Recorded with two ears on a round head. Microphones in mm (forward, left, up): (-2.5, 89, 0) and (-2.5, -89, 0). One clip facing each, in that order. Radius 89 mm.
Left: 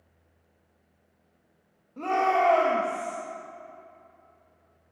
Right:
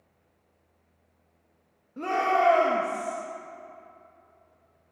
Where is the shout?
15° right (ahead or behind), 1.5 m.